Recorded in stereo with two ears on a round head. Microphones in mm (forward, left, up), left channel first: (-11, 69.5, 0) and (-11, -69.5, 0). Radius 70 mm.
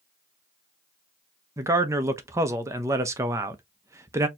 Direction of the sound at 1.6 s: 20° right (ahead or behind).